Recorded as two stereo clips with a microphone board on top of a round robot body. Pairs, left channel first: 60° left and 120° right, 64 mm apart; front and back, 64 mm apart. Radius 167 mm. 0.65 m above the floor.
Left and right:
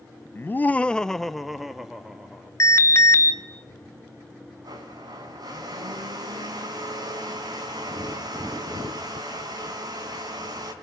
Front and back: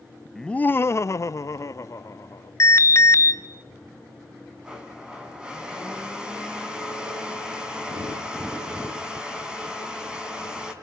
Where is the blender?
105° right, 4 m.